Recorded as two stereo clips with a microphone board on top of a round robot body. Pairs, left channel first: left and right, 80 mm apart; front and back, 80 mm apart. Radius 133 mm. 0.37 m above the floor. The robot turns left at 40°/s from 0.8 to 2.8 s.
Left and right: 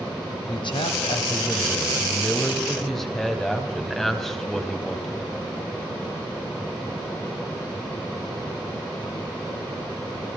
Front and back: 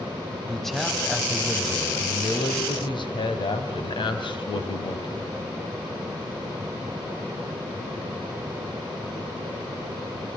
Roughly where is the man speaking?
Left.